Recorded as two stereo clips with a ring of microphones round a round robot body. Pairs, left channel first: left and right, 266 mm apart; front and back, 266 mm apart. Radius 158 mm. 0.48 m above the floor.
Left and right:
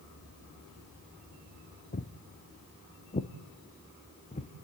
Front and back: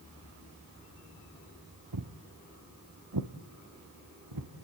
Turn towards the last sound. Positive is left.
turn(degrees=155)